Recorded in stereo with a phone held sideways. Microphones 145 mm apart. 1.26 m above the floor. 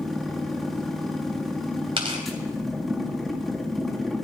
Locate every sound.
0.0 s a machine running: centre (ahead or behind), 1.7 m
2.0 s tearing paper: 40° right (ahead or behind), 3 m